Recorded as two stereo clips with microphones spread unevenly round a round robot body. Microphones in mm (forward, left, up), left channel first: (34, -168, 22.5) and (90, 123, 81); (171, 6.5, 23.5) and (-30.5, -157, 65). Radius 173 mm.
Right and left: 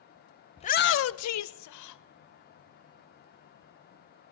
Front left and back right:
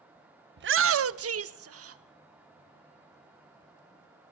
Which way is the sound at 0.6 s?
125° right.